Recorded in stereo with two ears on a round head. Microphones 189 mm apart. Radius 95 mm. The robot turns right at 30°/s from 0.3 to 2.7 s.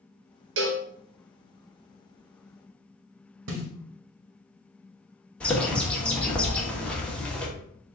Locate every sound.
0.6 s a cowbell: 60° right (ahead or behind), 0.7 m; by 0.8 s 55° right (ahead or behind), 0.7 m
3.5 s a snare drum: 60° right (ahead or behind), 1.0 m
5.4 s a bird: 5° left (ahead or behind), 0.8 m